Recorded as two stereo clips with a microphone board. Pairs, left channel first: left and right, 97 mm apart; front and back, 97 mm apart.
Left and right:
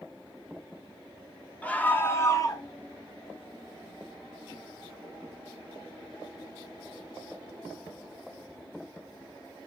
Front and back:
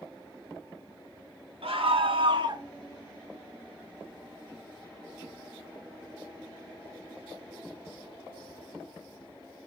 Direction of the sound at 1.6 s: 165° left.